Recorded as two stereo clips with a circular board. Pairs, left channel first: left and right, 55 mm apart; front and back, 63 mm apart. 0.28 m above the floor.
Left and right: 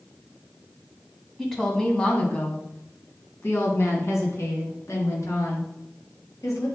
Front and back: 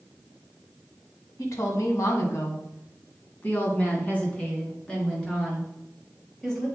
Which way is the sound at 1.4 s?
5° left.